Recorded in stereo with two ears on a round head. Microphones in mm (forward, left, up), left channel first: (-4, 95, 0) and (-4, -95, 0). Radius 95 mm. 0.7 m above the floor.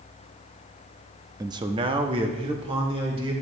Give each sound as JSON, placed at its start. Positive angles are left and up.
{"t": 1.4, "sound": "a man speaking", "side_deg": -15, "distance_m": 0.5}